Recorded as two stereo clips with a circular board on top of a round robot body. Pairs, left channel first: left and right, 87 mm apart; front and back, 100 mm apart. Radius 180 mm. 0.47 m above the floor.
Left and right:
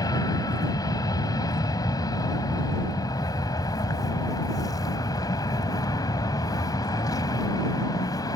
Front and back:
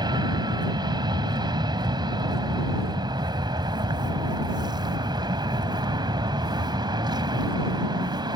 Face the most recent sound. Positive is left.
turn(degrees=135)